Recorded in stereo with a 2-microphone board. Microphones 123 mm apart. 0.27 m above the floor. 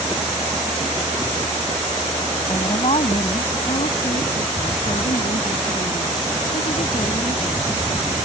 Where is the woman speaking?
45° left (ahead or behind); by 8.2 s 80° left.